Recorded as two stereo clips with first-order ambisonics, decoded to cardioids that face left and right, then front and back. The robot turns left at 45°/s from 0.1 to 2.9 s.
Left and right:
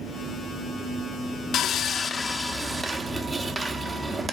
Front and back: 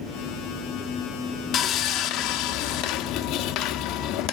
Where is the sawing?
45° left, 0.7 m; by 4.3 s 15° right, 0.7 m.